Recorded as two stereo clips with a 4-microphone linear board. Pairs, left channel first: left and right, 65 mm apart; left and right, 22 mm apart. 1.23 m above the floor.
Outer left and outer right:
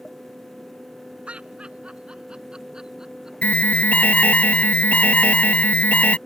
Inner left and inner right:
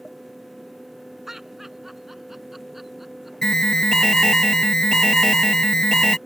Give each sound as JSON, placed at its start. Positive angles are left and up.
{"t": 1.3, "sound": "laughter", "side_deg": -15}
{"t": 3.4, "sound": "an alarm", "side_deg": 20}